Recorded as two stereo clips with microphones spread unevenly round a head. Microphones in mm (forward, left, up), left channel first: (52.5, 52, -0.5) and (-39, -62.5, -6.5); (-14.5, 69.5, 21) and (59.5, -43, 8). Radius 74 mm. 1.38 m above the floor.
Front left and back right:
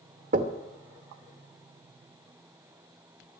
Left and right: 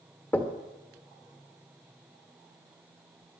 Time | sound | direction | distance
0.3 | knocking | 160° right | 1.0 m